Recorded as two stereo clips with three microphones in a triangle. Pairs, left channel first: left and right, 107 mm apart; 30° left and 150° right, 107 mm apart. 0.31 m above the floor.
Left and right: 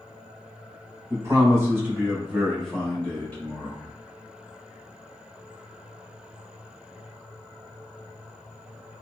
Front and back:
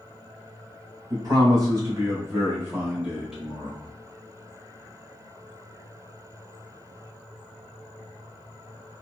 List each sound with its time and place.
1.1 s a man speaking: 130° right, 1.7 m; by 3.9 s 110° left, 1.4 m